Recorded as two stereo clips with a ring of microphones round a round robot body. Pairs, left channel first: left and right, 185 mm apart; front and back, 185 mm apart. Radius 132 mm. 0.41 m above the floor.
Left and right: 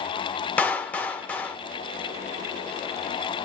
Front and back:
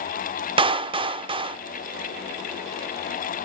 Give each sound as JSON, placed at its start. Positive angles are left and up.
{"t": 0.6, "sound": "a clap", "azimuth_deg": 165, "distance_m": 0.6}